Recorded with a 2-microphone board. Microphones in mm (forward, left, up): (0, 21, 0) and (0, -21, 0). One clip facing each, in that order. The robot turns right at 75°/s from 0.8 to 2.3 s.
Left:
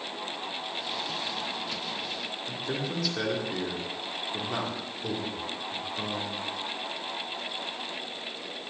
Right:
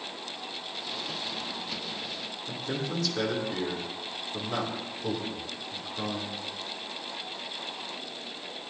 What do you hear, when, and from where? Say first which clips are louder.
2.5 s a man speaking: right 1 dB; 5° left (ahead or behind), 2.5 m